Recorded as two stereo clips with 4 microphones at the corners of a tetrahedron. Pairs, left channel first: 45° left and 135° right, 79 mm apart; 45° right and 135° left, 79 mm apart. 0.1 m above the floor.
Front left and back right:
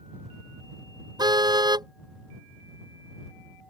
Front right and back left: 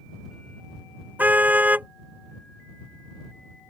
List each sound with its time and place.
1.2 s a car horn: 160° right